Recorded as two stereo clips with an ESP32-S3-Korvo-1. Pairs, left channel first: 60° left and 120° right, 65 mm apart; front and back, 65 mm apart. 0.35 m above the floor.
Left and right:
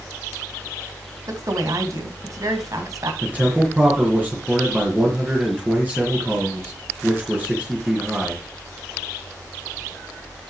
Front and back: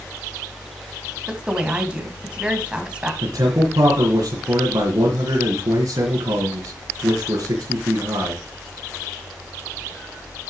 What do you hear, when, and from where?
1.3 s a woman speaking: 110° right, 3 m
3.2 s a man speaking: 175° left, 4 m